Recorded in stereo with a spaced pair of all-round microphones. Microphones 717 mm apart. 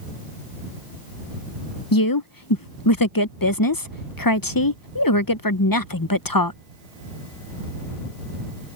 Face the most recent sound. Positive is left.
turn(degrees=30)  # may be behind; listen again after turning